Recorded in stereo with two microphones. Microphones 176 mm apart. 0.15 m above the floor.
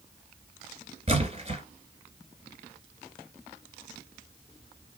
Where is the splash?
35° right (ahead or behind), 1.9 m.